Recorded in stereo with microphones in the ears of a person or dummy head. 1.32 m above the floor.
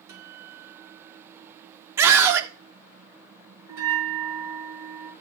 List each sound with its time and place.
0.1 s a guitar: 25° right (ahead or behind), 3 m
2.0 s a scream: 15° right (ahead or behind), 1.2 m
3.7 s a bell: 15° right (ahead or behind), 4 m